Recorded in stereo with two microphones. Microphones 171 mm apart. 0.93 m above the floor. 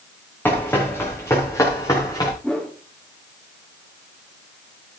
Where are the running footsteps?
10° left (ahead or behind), 5.5 m; by 2.3 s 25° left (ahead or behind), 6.5 m.